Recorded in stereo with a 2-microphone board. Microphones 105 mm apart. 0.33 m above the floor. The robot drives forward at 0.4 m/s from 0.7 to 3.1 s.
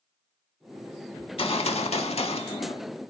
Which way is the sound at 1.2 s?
60° left (ahead or behind).